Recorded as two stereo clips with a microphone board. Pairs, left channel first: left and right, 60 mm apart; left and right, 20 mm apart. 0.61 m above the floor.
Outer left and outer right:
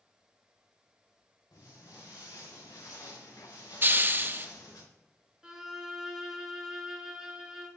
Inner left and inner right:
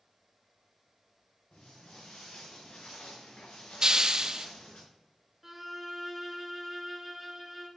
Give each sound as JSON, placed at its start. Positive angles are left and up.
{"t": 1.5, "sound": "footsteps", "side_deg": 75, "distance_m": 4.5}
{"t": 3.8, "sound": "a hiss", "side_deg": -35, "distance_m": 0.5}
{"t": 5.4, "sound": "a violin", "side_deg": -10, "distance_m": 1.2}